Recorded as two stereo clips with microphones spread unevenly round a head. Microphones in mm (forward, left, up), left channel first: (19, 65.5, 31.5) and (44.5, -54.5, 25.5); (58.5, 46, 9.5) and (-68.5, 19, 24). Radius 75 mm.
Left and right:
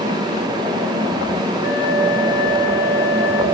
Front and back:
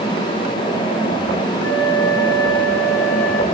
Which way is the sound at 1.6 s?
90° left.